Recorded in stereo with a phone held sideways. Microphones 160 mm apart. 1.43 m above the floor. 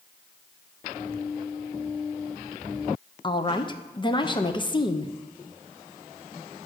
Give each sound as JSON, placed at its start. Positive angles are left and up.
{"t": 3.2, "sound": "a woman speaking", "side_deg": 30, "distance_m": 0.6}